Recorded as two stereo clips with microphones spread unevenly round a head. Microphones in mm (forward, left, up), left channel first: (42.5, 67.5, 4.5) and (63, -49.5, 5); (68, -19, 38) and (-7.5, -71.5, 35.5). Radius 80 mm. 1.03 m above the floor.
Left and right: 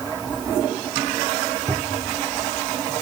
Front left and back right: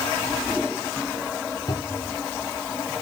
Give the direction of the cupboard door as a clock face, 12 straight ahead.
12 o'clock.